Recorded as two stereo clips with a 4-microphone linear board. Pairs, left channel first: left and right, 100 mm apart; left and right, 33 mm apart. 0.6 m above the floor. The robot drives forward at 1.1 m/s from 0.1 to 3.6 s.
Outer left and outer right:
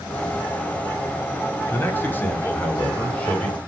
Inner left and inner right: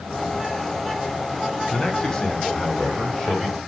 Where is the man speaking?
25° left (ahead or behind), 1.8 m; by 3.6 s 10° left (ahead or behind), 3.5 m.